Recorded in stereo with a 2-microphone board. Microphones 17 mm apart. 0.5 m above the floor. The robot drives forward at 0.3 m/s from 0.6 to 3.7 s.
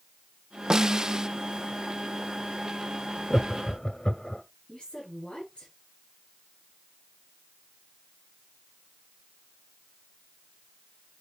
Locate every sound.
0.7 s a snare drum: 40° right (ahead or behind), 0.5 m; by 1.3 s 45° right (ahead or behind), 0.5 m
3.3 s laughter: 50° left (ahead or behind), 1.1 m
4.7 s a woman speaking: 75° left (ahead or behind), 8.5 m